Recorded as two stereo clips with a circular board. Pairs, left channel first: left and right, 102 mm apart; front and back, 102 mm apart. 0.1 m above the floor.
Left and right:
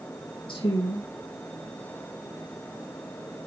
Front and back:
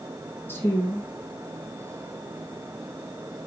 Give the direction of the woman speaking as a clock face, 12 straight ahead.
10 o'clock.